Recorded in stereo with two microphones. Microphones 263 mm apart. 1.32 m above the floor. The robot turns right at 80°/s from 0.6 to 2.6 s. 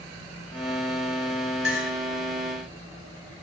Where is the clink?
55° left (ahead or behind), 5.5 m; by 1.9 s 30° left (ahead or behind), 5.5 m.